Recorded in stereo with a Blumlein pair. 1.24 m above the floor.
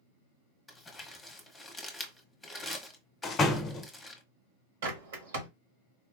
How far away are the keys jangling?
I don't hear keys jangling.